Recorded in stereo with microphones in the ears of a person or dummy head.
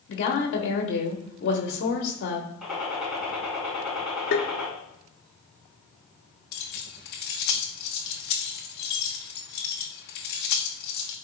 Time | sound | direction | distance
0.1 | a woman speaking | 65° left (ahead or behind) | 1.3 m
2.6 | a gunshot | centre (ahead or behind) | 4 m
4.3 | tapping | 60° left (ahead or behind) | 1.0 m
6.5 | keys jangling | 60° left (ahead or behind) | 1.1 m